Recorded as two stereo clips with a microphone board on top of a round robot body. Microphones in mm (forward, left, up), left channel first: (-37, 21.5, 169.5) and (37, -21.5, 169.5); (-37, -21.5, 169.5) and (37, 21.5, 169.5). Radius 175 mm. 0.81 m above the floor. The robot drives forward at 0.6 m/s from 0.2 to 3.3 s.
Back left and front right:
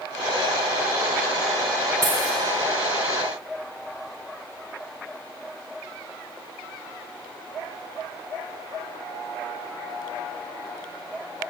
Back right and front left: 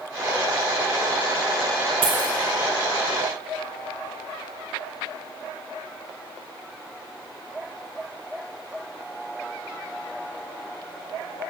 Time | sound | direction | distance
2.0 | a dropped coin | 20° left | 0.6 m